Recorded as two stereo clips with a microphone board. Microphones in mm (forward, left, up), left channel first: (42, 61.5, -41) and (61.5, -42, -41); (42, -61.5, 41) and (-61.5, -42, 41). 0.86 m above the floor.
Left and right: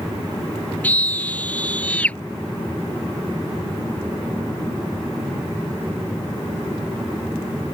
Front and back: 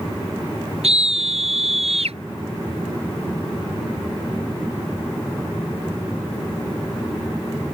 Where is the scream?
Straight behind.